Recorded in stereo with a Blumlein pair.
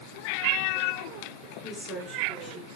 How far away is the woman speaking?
About 5 m.